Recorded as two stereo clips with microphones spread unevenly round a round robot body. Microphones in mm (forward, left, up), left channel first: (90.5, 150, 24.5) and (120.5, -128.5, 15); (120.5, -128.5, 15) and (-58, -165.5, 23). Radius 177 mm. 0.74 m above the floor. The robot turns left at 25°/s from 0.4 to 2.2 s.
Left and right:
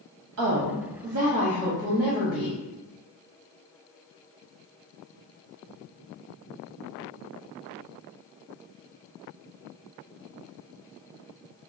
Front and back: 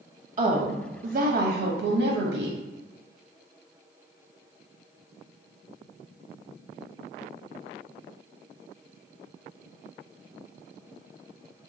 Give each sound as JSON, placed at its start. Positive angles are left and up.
{"t": 0.4, "sound": "a woman speaking", "azimuth_deg": -125, "distance_m": 0.7}